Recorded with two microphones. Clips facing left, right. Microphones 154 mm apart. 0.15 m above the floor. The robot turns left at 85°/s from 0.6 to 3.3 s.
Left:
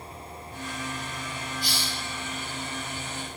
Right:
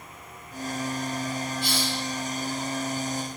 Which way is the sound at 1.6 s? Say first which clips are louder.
Right 5 dB; 50° left.